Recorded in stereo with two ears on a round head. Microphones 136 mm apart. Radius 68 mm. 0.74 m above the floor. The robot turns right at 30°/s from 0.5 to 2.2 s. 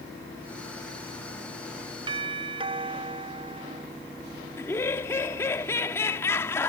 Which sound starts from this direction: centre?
Laughter, at 4.6 s.